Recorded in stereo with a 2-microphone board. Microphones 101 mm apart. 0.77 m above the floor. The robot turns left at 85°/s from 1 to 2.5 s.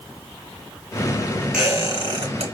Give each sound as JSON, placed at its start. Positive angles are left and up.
{"t": 1.5, "sound": "a squeak", "side_deg": -10, "distance_m": 2.0}